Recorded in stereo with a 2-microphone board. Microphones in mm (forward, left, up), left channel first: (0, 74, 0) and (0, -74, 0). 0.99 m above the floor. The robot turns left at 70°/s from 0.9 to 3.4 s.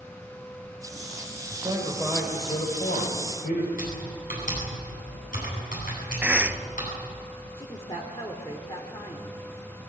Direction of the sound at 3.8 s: 70° left (ahead or behind).